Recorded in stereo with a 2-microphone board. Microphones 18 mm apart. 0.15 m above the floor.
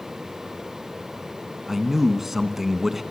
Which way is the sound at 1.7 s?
10° right (ahead or behind).